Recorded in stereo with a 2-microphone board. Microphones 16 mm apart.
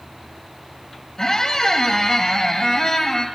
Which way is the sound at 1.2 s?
40° left (ahead or behind).